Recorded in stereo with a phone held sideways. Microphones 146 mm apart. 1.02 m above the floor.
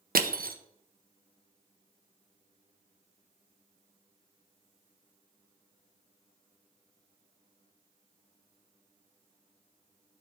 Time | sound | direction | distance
0.1 | crushing | 70° right (ahead or behind) | 0.5 m